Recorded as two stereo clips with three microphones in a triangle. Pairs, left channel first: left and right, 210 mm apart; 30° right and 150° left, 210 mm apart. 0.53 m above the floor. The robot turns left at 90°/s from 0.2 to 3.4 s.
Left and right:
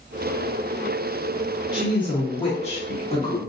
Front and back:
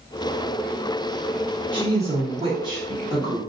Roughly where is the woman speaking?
Behind.